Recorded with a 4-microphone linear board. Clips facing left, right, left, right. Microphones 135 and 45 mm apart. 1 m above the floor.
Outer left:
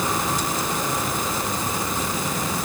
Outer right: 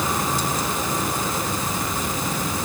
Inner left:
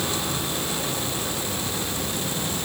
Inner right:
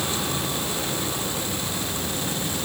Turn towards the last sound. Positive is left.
No sound to turn to.